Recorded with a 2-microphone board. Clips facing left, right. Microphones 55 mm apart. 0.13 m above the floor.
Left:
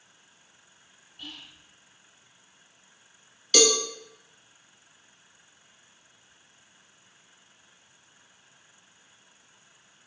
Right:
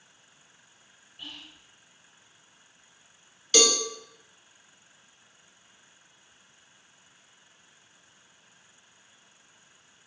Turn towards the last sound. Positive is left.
turn(degrees=-5)  # may be behind; listen again after turning